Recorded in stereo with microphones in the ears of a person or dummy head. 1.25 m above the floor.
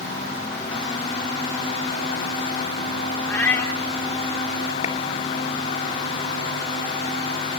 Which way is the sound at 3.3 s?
15° left (ahead or behind).